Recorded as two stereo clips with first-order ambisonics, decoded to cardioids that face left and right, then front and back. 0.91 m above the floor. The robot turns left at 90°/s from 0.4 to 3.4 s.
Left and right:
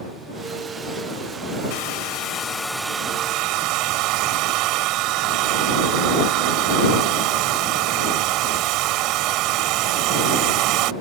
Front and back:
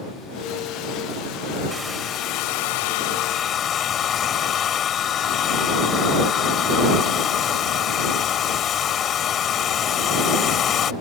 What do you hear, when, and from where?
1.7 s a hair dryer: 95° left; by 10.9 s 55° right